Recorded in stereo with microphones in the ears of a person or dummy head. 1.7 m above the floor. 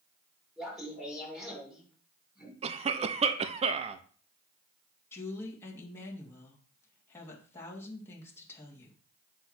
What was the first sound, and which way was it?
Laughter, centre (ahead or behind).